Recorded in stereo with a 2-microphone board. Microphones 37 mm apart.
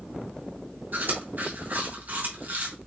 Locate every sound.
0.9 s chewing: 55° right (ahead or behind), 2.5 m